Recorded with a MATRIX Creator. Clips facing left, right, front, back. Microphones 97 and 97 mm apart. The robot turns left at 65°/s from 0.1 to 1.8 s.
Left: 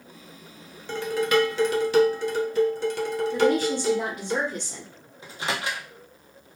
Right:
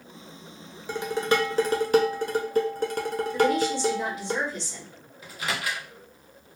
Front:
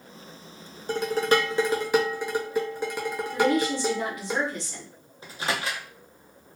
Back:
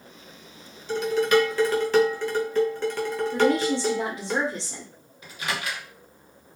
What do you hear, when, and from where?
0.9 s dishes clattering: 15° right, 0.6 m; by 4.3 s 75° right, 0.6 m
3.3 s a woman speaking: 120° left, 0.8 m
5.2 s a microwave: 40° left, 0.6 m